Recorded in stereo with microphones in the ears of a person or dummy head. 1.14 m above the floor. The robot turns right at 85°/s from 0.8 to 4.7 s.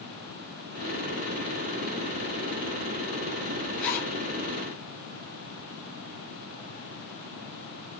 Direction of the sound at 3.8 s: 5° left (ahead or behind).